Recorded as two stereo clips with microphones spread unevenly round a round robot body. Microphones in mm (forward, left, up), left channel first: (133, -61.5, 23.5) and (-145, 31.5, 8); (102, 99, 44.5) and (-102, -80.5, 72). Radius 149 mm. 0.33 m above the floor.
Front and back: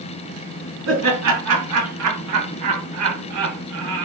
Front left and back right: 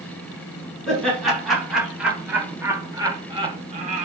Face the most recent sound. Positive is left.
turn(degrees=160)